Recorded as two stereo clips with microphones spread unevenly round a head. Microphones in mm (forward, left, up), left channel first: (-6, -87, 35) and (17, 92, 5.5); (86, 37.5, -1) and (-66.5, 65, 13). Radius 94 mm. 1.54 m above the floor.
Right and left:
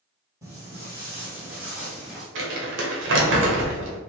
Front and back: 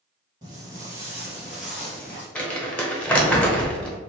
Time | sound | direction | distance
0.4 | footsteps | 160° left | 1.7 m
2.4 | crumpling | 70° left | 1.1 m